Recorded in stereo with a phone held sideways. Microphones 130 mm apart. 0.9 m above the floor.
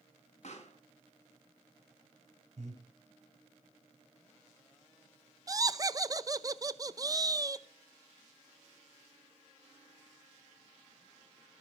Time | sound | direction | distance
0.4 | a pop | 60° left (ahead or behind) | 3.5 m
2.6 | breathing | 60° right (ahead or behind) | 3.5 m
5.5 | laughter | 30° right (ahead or behind) | 0.7 m